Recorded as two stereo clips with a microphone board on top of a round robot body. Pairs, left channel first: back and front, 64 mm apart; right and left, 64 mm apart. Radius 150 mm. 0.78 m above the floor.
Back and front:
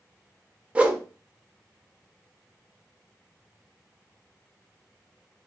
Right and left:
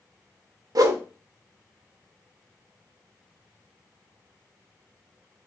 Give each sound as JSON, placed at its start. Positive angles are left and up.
{"t": 0.8, "sound": "a whoosh", "azimuth_deg": 70, "distance_m": 0.7}